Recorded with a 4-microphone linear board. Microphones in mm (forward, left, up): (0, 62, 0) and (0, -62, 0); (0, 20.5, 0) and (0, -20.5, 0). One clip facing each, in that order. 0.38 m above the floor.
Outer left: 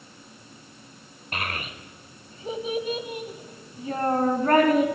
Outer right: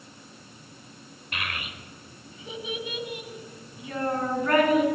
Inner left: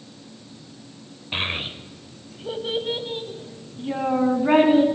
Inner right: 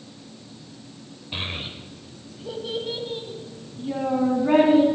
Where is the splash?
No splash in this recording.